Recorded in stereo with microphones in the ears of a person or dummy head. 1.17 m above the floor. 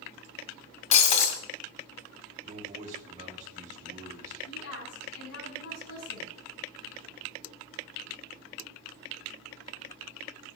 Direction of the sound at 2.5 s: 40° right (ahead or behind).